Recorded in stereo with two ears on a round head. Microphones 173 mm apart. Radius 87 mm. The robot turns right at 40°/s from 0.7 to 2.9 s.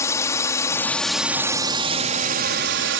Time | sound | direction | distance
0.0 | a drone | 165° left | ?